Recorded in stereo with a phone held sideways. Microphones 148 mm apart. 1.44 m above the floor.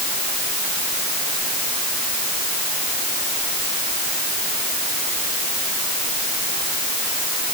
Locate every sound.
Only background noise.